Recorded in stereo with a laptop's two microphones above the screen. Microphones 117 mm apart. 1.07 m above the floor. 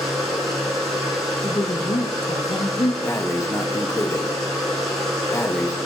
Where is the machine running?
Centre (ahead or behind), 2 m.